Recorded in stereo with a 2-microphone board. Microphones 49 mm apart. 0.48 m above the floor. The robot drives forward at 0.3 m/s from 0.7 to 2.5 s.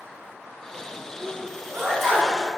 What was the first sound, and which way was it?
A sneeze, 5° left (ahead or behind).